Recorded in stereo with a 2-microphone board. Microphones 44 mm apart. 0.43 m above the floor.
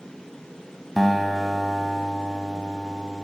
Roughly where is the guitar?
Centre.